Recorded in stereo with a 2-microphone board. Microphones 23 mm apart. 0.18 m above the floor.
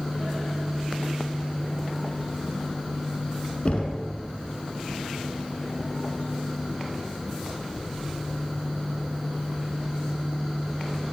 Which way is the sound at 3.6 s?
50° left (ahead or behind).